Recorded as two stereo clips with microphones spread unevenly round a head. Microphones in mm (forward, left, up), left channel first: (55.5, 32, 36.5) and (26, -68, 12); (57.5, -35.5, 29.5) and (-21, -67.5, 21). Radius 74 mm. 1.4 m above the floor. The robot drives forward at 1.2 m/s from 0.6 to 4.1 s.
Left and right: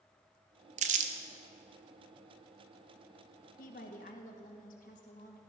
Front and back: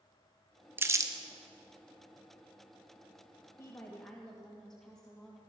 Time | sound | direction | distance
0.8 | crumpling | 90° right | 1.3 m
3.6 | a woman speaking | 90° left | 1.9 m